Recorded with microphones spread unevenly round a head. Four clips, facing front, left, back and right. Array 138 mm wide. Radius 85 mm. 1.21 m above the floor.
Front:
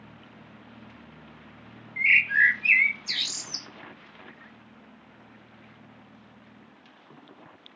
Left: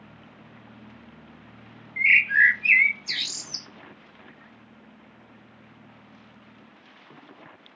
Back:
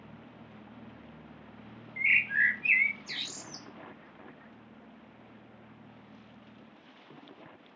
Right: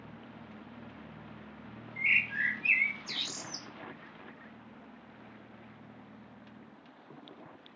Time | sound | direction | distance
2.0 | a bird | 50° left | 0.7 m